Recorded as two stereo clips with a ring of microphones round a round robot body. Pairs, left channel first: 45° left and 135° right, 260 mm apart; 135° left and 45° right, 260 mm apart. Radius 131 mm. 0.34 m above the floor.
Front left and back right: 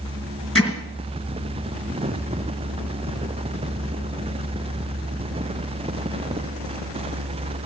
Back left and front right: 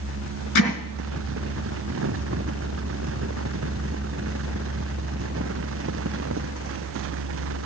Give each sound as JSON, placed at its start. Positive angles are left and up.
{"t": 0.6, "sound": "hammering", "azimuth_deg": 155, "distance_m": 3.5}